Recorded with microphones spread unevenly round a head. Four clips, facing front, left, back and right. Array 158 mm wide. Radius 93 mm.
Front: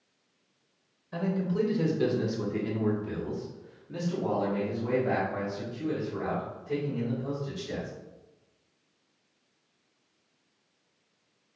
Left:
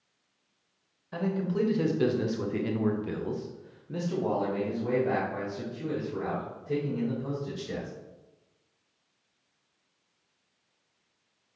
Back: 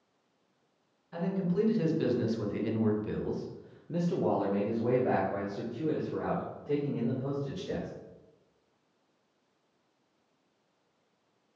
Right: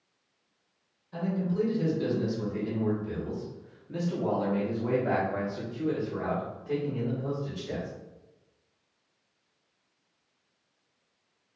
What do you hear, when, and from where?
1.1 s a man speaking: 60° left, 1.4 m; by 7.9 s 140° right, 2.5 m